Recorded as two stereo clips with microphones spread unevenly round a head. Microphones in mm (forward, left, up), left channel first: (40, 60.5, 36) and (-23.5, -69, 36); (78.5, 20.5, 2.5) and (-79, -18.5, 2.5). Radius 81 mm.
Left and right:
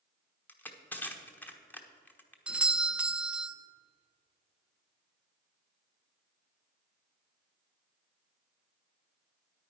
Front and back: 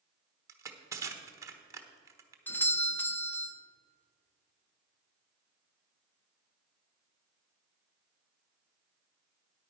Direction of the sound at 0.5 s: 135° left.